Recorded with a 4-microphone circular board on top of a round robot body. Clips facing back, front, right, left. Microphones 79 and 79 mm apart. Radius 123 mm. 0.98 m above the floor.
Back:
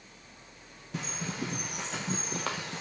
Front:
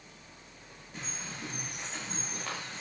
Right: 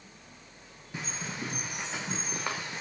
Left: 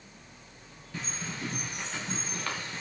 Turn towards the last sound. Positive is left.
turn(degrees=-165)